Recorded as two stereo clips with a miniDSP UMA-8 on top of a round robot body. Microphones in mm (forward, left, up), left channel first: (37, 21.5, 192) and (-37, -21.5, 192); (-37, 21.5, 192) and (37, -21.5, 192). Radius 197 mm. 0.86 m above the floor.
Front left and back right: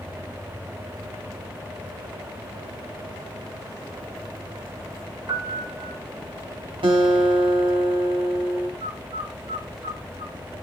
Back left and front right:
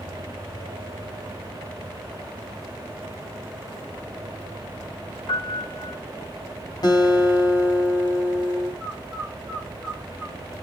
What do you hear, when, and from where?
5.3 s a piano: 170° left, 5 m
6.8 s a guitar: 170° right, 4.5 m
8.8 s a bird: 120° right, 5 m